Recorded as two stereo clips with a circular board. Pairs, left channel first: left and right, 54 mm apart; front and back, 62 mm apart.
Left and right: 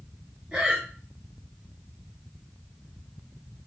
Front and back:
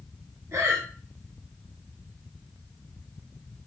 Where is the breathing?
160° right, 0.7 m.